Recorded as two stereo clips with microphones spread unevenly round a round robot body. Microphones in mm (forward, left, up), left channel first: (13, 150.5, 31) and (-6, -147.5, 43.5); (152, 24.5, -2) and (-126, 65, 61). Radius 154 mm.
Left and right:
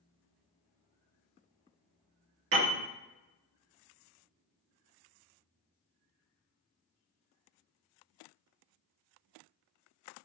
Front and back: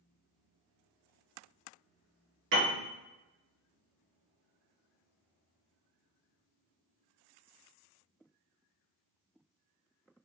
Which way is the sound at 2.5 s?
140° right.